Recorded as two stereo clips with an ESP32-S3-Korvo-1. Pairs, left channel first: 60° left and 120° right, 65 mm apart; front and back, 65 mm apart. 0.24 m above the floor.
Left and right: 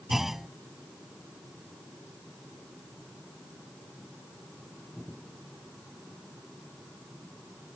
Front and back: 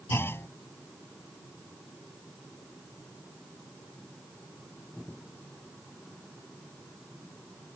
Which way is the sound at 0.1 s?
35° right.